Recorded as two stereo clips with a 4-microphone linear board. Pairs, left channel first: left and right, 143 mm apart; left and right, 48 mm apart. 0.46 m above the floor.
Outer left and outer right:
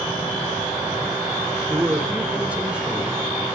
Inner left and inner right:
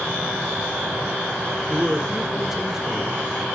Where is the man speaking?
15° right (ahead or behind), 1.2 m; by 3.3 s 5° right (ahead or behind), 2.5 m.